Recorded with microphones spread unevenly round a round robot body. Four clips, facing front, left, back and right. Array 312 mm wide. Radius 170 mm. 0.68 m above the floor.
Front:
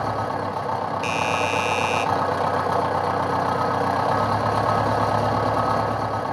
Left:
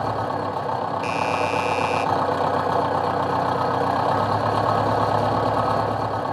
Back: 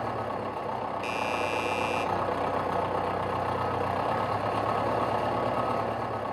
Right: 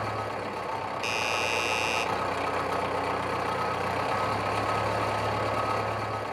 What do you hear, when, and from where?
0.0 s an engine running: 40° left, 1.9 m
1.0 s a doorbell: 20° right, 1.8 m